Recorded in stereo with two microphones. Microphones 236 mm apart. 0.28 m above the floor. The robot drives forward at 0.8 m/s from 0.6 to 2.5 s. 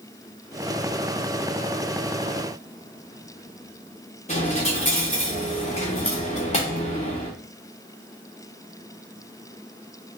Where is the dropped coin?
30° left (ahead or behind), 1.3 m.